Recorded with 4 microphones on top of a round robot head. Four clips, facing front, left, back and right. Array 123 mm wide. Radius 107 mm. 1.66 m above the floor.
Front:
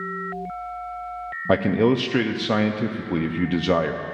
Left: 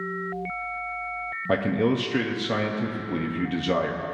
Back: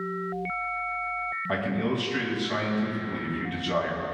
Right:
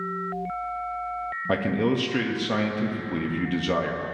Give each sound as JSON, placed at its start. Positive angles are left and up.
{"t": 1.5, "sound": "a man speaking", "azimuth_deg": 20, "distance_m": 0.7}